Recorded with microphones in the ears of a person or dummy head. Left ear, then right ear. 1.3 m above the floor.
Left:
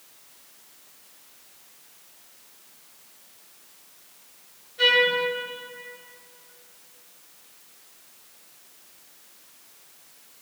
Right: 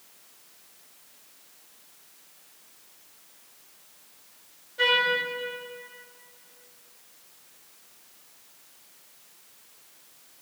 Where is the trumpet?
45° right (ahead or behind), 4 m.